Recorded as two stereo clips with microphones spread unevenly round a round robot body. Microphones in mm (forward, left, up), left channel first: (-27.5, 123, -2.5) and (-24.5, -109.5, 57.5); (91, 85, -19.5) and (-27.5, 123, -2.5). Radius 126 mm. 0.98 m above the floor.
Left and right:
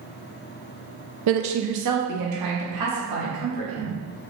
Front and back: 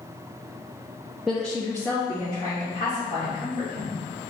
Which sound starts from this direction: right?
A woman speaking, at 1.3 s.